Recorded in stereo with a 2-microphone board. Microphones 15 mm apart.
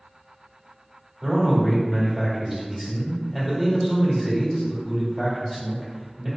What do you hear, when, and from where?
1.2 s a man speaking: 10° right (ahead or behind), 1.4 m